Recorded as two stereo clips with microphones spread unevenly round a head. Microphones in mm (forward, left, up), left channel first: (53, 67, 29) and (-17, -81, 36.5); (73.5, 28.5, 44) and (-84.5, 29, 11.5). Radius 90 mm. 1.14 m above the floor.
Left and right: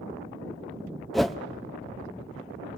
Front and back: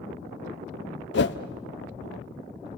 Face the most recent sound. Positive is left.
turn(degrees=-25)